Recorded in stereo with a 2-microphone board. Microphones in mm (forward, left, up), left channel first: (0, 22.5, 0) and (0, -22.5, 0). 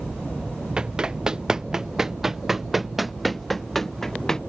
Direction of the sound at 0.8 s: 20° right (ahead or behind).